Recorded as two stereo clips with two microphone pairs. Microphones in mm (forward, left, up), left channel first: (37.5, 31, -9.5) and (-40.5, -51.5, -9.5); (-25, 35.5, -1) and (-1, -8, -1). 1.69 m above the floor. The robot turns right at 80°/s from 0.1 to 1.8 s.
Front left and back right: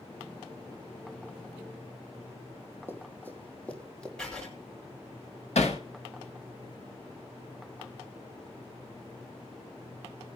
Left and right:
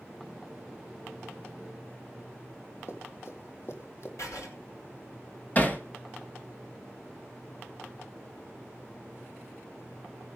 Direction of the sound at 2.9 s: 115° left.